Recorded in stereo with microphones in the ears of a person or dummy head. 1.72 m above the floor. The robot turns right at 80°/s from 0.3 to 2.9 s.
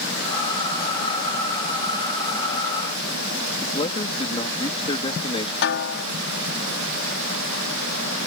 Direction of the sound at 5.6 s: 65° left (ahead or behind).